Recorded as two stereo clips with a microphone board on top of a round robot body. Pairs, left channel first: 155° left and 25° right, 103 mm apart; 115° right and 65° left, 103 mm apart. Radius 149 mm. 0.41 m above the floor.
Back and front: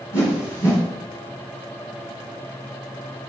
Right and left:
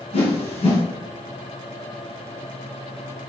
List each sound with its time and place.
0.1 s a whoosh: 140° right, 5 m